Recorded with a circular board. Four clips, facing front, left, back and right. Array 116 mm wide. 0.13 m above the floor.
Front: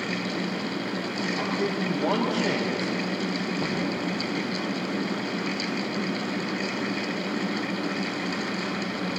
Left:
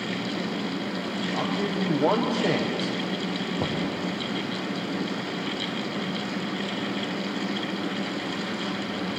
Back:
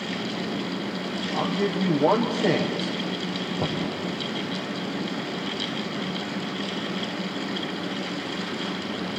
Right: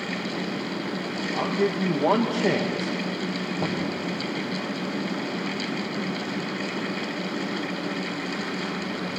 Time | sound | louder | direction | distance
1.3 | a man speaking | right 4 dB, back 3 dB | 135° left | 5.5 m
3.6 | knocking | right 1 dB, back 3 dB | 125° left | 6 m